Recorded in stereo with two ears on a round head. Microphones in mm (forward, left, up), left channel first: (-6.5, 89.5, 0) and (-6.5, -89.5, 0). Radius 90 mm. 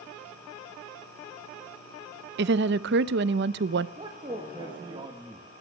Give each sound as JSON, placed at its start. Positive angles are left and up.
{"t": 2.4, "sound": "a woman speaking", "side_deg": -60, "distance_m": 0.5}
{"t": 4.0, "sound": "a man speaking", "side_deg": -25, "distance_m": 1.2}